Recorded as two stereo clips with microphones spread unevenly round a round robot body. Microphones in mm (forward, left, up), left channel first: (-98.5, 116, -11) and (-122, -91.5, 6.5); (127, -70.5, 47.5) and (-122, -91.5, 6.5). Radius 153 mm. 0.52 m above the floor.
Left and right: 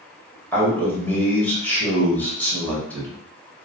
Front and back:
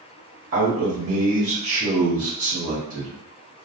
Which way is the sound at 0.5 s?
165° left.